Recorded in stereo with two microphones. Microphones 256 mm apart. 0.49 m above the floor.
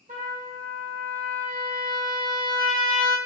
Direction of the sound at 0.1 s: 30° right (ahead or behind).